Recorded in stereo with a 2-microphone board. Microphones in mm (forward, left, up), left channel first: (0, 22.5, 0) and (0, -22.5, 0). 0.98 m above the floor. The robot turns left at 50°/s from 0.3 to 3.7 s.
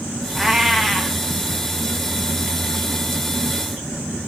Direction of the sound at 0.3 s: 10° right (ahead or behind).